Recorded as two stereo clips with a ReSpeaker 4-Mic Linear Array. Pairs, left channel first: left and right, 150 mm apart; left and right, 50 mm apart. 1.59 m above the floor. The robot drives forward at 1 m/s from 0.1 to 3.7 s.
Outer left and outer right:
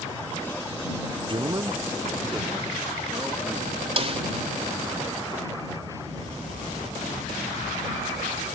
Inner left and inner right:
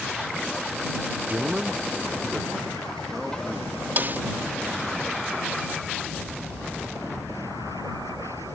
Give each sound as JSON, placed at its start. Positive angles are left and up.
{"t": 1.3, "sound": "a man speaking", "side_deg": -40}
{"t": 4.0, "sound": "a snare drum", "side_deg": -45}